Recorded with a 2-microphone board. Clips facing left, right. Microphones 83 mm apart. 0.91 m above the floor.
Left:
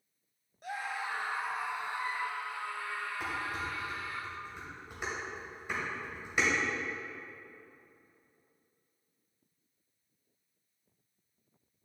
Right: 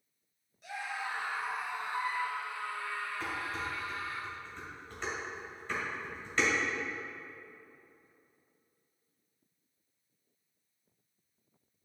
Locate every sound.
0.6 s a scream: 45° left (ahead or behind), 1.1 m; by 4.2 s 20° left (ahead or behind), 4 m
3.2 s dishes clattering: 15° left (ahead or behind), 3 m